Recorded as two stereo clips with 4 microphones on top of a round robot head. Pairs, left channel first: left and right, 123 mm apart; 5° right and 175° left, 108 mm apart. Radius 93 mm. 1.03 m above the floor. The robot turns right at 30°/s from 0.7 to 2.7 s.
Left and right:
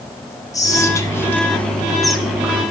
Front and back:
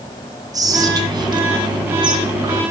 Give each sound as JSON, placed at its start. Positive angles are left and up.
{"t": 0.5, "sound": "whispering", "azimuth_deg": 140, "distance_m": 0.8}